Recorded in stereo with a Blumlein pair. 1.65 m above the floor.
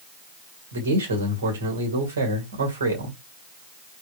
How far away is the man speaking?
About 2.5 m.